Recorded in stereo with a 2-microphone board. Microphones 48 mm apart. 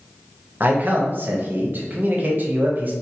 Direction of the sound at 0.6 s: 40° right (ahead or behind).